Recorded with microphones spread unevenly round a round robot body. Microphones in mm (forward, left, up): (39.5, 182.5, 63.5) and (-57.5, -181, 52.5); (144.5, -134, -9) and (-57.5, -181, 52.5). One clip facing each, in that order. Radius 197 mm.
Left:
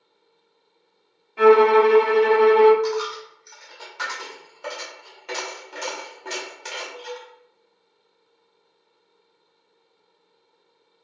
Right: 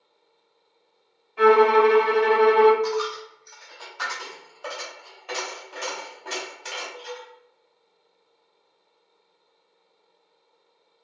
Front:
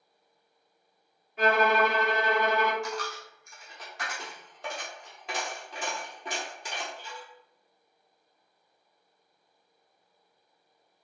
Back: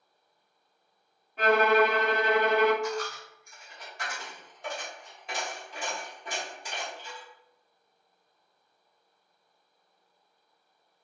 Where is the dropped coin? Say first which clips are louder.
Left 1 dB, back 4 dB; 25° left, 0.6 m.